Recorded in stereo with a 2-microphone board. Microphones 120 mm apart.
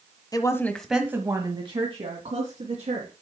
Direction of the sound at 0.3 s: 35° left (ahead or behind).